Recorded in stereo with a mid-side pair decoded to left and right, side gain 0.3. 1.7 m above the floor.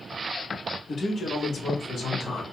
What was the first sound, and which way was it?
A man speaking, 65° left.